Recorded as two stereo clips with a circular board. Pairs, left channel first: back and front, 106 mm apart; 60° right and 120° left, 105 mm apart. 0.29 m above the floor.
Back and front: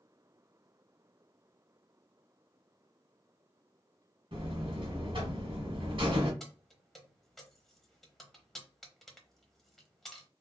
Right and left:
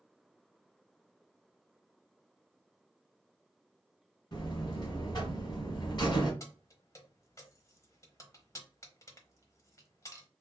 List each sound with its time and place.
4.3 s a buzzer: 25° right, 1.5 m
6.4 s keys jangling: 95° right, 0.9 m